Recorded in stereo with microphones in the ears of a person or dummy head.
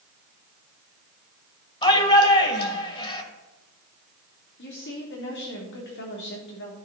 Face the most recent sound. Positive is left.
turn(degrees=60)  # may be behind; listen again after turning